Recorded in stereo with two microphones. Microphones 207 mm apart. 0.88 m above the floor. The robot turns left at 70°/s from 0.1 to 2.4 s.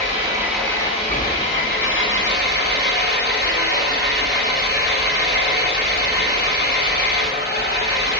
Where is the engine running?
145° right, 2.5 m; by 8.2 s 55° left, 2.5 m.